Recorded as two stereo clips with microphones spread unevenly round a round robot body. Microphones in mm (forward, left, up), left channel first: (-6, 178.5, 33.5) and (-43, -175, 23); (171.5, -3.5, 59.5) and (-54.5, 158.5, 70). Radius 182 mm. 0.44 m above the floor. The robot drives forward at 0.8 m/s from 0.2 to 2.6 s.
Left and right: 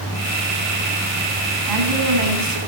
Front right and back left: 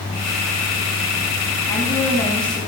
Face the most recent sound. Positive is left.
turn(degrees=-120)